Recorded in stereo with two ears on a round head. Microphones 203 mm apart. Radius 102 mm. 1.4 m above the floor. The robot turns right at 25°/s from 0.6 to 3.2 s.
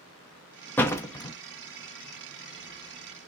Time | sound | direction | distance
0.8 | a door slam | 10° left (ahead or behind) | 1.0 m